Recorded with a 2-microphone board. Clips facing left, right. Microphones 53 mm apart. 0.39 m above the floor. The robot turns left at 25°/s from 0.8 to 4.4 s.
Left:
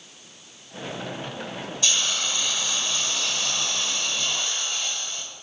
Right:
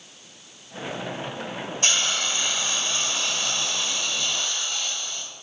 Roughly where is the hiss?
Right.